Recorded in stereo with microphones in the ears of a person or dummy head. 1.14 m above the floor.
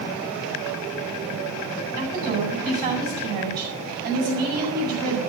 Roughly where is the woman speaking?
Right.